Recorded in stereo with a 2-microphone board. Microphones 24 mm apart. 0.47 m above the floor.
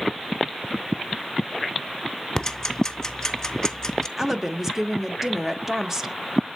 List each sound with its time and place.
2.4 s ticking: 25° left (ahead or behind), 0.8 m
4.2 s a woman speaking: 15° right (ahead or behind), 0.7 m